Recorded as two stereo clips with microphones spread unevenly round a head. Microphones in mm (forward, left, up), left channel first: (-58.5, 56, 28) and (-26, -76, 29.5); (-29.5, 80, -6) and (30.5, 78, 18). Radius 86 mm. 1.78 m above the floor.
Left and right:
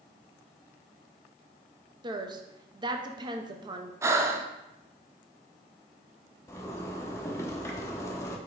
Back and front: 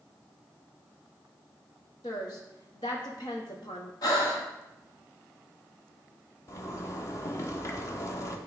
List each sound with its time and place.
2.0 s a woman speaking: 130° right, 0.9 m
4.0 s breathing: 140° right, 0.7 m
6.5 s a zipper: 150° left, 0.8 m